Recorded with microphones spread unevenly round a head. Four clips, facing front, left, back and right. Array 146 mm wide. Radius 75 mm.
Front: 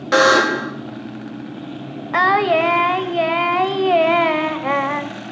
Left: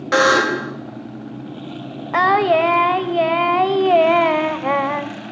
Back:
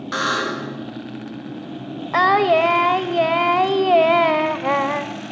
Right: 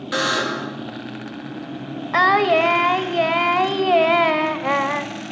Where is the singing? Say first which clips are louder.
Left 1 dB, even; 115° left, 1.5 m.